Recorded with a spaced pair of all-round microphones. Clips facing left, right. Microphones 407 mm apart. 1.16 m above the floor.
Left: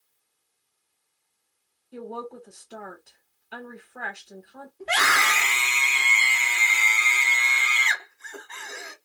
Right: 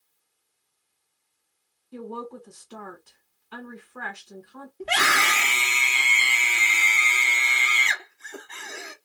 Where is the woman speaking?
15° right (ahead or behind), 1.3 m.